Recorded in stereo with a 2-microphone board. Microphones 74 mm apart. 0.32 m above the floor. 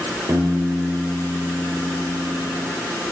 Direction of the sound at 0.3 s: 35° right (ahead or behind).